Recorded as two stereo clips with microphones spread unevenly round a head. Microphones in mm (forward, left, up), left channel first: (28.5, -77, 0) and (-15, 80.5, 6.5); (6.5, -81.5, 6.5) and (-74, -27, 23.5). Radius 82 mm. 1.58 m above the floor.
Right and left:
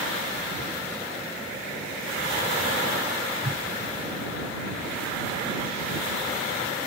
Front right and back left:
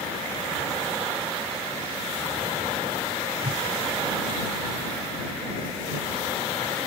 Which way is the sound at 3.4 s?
140° left.